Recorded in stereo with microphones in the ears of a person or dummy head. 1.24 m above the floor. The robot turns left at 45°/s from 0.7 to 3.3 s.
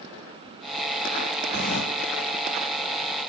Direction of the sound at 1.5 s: 50° left (ahead or behind).